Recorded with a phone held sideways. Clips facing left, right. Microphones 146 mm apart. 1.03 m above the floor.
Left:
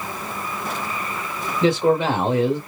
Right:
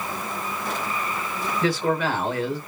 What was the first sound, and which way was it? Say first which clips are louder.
A man speaking: left 6 dB; 25° left (ahead or behind).